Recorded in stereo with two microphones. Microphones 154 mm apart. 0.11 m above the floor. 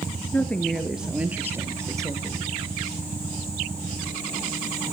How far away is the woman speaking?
About 1.7 m.